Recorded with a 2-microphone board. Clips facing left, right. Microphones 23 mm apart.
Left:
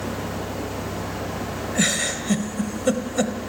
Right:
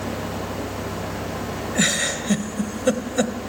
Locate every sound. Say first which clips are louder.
1.8 s a giggle: right 1 dB; 10° right (ahead or behind), 1.1 m